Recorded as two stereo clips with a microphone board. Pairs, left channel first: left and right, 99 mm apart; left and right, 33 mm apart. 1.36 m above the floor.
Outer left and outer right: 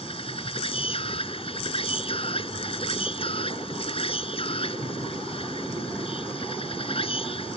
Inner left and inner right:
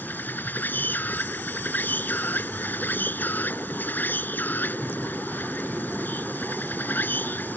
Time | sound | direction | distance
0.0 | an insect | 70° left (ahead or behind) | ?